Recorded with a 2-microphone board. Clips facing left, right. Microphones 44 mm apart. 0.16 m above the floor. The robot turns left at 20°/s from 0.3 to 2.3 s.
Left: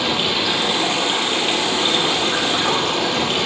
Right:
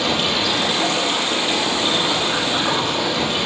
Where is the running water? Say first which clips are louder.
Even; 165° left, 1.9 m; by 3.5 s 125° left, 1.9 m.